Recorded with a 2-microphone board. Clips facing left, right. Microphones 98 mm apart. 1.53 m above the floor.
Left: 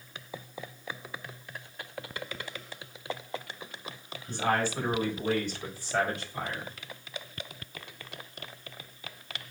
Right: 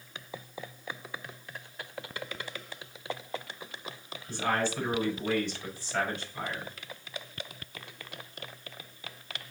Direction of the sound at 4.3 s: 35° left (ahead or behind).